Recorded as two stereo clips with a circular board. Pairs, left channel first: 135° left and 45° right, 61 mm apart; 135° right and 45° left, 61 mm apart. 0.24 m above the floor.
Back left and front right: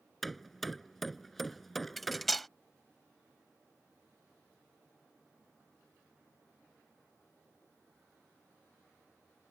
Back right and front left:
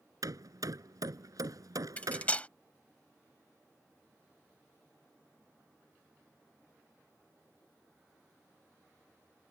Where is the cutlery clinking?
140° right.